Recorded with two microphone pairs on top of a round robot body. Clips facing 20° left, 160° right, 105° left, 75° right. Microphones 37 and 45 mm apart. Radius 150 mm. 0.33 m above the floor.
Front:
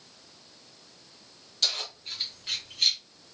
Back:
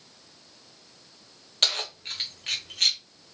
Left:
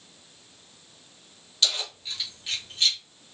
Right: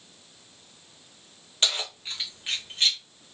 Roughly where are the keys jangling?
Behind right.